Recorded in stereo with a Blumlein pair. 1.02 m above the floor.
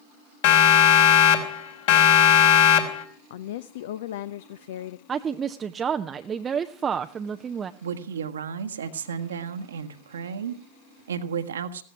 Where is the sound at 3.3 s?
55° left, 0.6 m.